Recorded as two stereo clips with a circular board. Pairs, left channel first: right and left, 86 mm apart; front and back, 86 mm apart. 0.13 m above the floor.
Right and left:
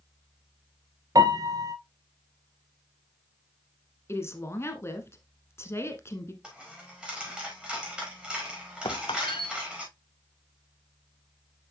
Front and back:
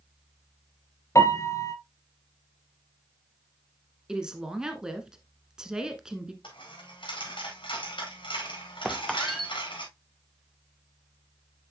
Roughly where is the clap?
I don't hear a clap.